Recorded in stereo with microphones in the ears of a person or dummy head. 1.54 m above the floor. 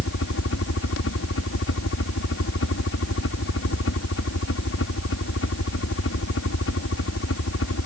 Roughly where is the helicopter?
Left.